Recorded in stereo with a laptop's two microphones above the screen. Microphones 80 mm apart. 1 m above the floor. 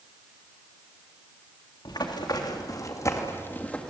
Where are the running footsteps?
65° left (ahead or behind), 3.5 m; by 3.9 s 10° left (ahead or behind), 2.0 m.